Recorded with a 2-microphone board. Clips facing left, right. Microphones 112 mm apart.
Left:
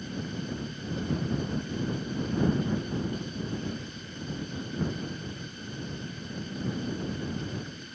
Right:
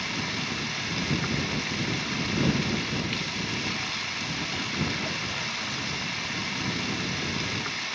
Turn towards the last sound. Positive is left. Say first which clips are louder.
# right 2 dB
turn(degrees=-80)